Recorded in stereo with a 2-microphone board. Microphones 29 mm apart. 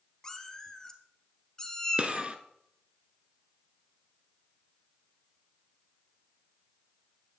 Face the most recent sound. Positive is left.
turn(degrees=-40)  # may be behind; listen again after turning